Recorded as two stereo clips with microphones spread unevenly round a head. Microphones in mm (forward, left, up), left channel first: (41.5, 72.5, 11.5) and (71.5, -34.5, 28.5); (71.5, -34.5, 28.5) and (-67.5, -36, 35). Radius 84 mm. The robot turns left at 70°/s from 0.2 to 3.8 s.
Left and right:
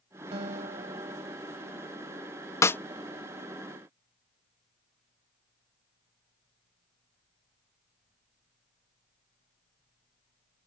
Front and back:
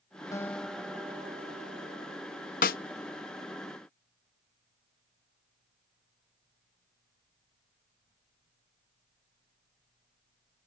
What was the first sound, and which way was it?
A guitar, 65° right.